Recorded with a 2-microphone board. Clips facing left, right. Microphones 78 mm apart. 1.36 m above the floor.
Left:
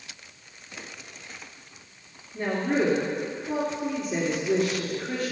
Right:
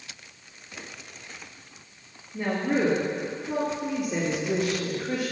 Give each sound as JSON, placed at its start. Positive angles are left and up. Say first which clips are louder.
{"t": 2.3, "sound": "a woman speaking", "louder": "even", "side_deg": -15, "distance_m": 3.0}